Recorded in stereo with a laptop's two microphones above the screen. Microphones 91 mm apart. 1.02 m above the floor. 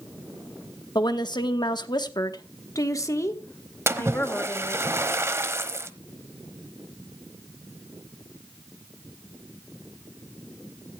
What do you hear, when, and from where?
0.9 s a woman speaking: 55° left (ahead or behind), 1.2 m; by 4.8 s 20° left (ahead or behind), 2.5 m
3.9 s a splash: 30° right (ahead or behind), 0.9 m